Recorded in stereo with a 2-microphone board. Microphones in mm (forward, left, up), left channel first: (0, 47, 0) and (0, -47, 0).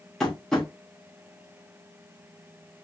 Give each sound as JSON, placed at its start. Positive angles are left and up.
{"t": 0.2, "sound": "tapping", "side_deg": 5, "distance_m": 1.1}